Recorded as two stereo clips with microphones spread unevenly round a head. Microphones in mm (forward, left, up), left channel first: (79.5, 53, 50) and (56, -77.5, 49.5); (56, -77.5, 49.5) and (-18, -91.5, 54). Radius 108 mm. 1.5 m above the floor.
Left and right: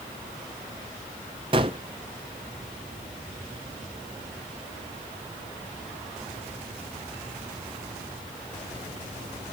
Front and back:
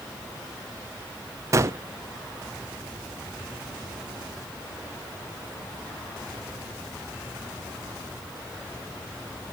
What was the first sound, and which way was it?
A gunshot, 150° right.